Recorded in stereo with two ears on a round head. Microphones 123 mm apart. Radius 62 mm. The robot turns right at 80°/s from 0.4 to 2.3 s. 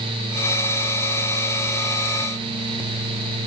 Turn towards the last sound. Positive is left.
No sound to turn to.